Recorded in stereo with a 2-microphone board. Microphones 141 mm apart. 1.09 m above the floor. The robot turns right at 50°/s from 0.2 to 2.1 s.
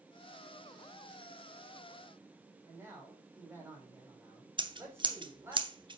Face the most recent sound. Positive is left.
turn(degrees=-35)  # may be behind; listen again after turning